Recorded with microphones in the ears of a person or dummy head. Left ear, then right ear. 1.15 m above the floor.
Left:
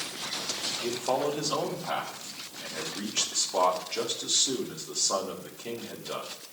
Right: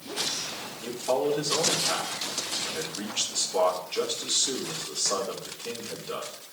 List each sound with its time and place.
0.8 s a man speaking: 50° left (ahead or behind), 1.8 m